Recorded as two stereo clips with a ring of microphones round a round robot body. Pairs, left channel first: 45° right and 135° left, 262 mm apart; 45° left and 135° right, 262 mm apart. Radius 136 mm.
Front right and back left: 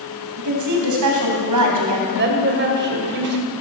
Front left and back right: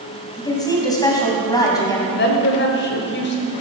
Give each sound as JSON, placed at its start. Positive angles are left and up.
{"t": 0.4, "sound": "a woman speaking", "azimuth_deg": 120, "distance_m": 3.5}
{"t": 2.1, "sound": "a woman speaking", "azimuth_deg": 90, "distance_m": 2.5}